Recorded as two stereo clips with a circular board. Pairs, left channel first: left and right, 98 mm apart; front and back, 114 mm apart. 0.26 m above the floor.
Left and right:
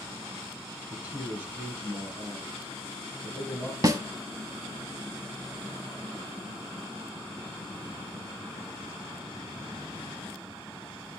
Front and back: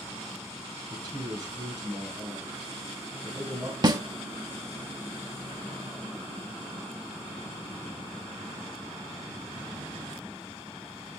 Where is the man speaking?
155° right, 1.5 m.